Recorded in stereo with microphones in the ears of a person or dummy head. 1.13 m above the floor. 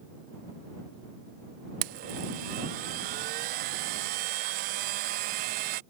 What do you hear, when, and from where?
1.8 s a blender: 45° right (ahead or behind)